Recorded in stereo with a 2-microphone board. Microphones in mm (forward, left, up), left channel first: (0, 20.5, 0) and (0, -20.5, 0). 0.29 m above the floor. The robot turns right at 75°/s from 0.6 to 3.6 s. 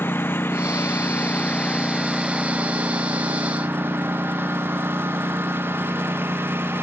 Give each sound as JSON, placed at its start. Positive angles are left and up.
{"t": 0.0, "sound": "a lawn mower", "side_deg": 90}